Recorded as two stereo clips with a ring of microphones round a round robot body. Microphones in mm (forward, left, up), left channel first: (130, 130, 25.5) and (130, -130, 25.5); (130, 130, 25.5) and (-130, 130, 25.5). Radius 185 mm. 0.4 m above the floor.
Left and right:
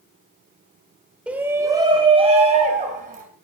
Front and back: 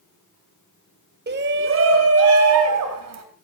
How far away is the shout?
About 1.6 m.